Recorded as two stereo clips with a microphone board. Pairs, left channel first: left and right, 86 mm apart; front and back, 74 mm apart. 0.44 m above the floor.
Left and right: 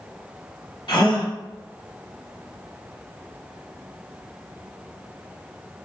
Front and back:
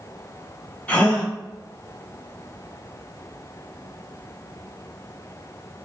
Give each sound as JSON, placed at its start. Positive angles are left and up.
{"t": 0.9, "sound": "a gasp", "azimuth_deg": 70, "distance_m": 1.1}